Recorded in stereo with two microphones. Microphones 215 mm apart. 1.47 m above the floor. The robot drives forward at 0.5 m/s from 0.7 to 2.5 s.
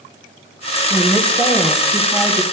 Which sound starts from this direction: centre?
A woman speaking, at 0.9 s.